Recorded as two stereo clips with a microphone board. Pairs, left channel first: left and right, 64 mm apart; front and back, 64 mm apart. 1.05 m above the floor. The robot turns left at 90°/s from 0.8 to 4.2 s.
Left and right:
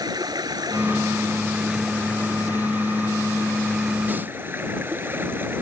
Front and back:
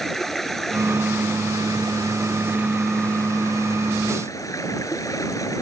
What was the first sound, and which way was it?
Running water, 85° right.